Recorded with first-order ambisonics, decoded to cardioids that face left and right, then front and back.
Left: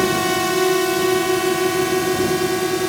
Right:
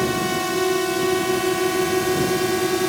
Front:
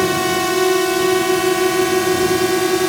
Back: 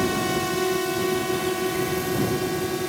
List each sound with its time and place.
0.0 s a drone: 30° left; by 2.9 s straight ahead